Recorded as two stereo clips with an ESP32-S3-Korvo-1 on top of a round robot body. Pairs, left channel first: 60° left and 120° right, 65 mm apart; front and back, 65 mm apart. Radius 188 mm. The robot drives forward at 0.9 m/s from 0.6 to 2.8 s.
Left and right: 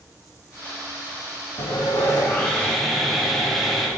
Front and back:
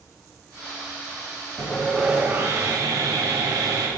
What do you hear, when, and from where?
1.6 s sawing: 50° left, 0.8 m; by 3.9 s 145° left, 1.0 m